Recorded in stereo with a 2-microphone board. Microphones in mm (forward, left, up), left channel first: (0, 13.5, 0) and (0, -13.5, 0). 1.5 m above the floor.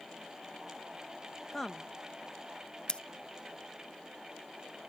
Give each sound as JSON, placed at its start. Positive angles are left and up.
{"t": 1.5, "sound": "a woman speaking", "side_deg": 10}
{"t": 2.9, "sound": "scissors", "side_deg": 40}